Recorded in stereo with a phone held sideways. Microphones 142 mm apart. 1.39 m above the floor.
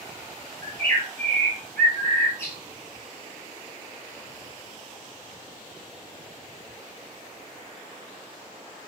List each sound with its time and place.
0.6 s a bird: 20° left (ahead or behind), 2 m